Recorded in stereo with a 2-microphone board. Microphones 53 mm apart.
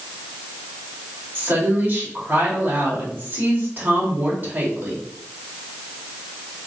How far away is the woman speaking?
About 2 m.